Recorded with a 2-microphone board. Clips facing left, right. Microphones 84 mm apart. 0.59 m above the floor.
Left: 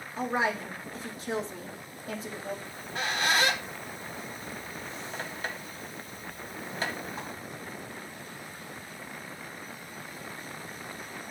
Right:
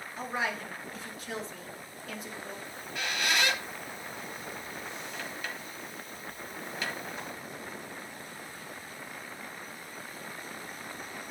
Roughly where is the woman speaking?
Left.